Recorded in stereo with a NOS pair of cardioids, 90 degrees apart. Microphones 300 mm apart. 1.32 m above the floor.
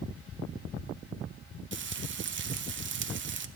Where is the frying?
40° right, 0.9 m.